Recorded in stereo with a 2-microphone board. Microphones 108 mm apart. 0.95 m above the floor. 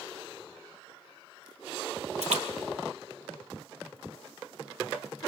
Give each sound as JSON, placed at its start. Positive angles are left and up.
{"t": 2.2, "sound": "a splash", "side_deg": -90, "distance_m": 2.5}